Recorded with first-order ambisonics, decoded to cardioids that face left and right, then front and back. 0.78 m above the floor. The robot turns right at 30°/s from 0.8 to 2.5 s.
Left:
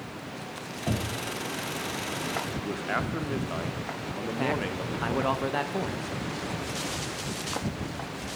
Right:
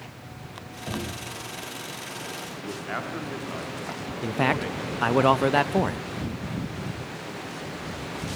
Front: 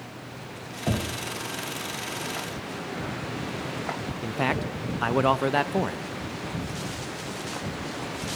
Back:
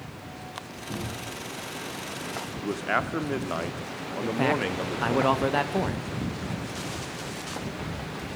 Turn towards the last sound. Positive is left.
turn(degrees=-80)